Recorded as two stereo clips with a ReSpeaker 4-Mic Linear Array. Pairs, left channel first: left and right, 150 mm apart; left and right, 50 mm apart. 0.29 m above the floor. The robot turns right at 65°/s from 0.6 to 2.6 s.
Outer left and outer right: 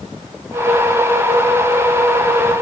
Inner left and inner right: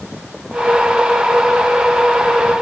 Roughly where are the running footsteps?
I don't hear running footsteps.